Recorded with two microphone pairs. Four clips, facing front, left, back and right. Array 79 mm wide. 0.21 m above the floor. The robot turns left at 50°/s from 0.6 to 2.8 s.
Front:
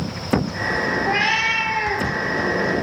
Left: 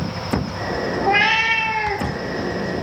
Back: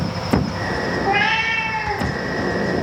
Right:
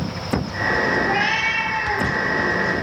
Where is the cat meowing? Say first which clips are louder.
Left 3 dB, back 4 dB; 105° left, 2.5 m; by 2.1 s 50° left, 2.5 m.